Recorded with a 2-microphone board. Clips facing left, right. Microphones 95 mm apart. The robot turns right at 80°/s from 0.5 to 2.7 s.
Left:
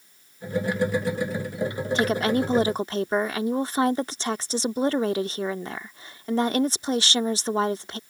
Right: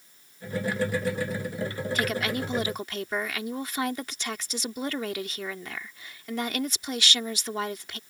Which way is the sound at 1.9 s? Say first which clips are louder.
Left 7 dB; 55° left.